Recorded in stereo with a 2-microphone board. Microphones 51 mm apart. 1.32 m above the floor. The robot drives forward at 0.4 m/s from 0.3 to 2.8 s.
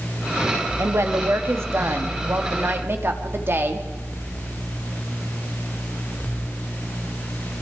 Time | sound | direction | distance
0.8 | a woman speaking | 65° right (ahead or behind) | 2.5 m